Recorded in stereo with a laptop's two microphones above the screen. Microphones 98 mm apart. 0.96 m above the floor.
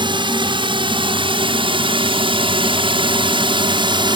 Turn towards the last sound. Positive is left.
turn(degrees=-55)  # may be behind; listen again after turning